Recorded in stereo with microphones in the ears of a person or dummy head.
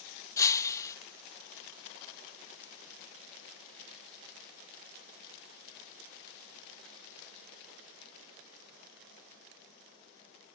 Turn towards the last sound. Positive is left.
turn(degrees=15)  # may be behind; listen again after turning